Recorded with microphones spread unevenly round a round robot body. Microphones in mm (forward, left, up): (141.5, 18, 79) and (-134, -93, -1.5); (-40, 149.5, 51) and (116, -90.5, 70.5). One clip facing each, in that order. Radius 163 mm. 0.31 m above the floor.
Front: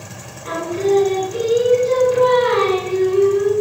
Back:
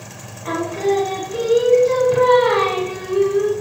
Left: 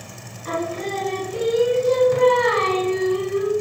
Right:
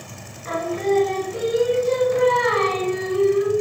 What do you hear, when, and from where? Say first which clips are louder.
0.5 s singing: front 1 dB, right 5 dB; 175° left, 1.6 m